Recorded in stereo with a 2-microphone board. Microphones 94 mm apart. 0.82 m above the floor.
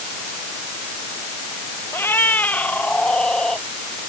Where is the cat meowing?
25° left (ahead or behind); by 3.6 s 5° left (ahead or behind).